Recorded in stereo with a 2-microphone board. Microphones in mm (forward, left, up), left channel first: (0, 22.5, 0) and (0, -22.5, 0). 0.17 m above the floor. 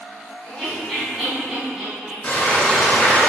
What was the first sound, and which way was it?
Laughter, 15° left (ahead or behind).